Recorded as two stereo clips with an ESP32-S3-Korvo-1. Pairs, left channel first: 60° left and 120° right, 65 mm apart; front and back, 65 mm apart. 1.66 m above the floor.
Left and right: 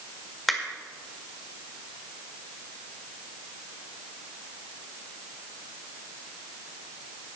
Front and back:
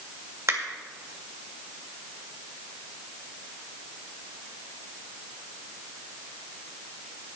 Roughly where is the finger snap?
Behind left.